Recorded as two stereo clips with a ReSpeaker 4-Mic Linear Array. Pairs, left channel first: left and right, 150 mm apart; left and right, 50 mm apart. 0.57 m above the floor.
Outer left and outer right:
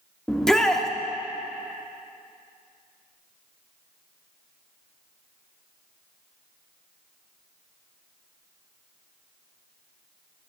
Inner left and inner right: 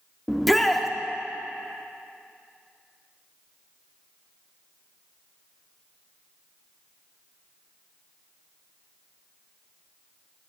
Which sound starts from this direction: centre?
A shout, at 0.3 s.